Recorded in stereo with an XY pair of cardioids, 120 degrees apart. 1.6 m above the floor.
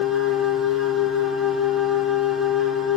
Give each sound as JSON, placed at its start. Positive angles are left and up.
{"t": 0.0, "sound": "a machine running", "azimuth_deg": 50, "distance_m": 0.8}